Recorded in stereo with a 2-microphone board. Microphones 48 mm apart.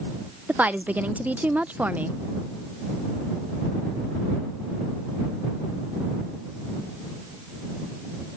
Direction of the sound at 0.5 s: 30° right (ahead or behind).